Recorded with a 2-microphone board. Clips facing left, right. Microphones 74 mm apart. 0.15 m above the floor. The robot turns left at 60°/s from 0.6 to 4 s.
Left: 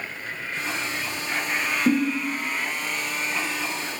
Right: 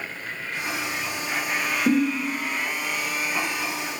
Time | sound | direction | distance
1.9 | a giggle | 15° left (ahead or behind) | 1.4 m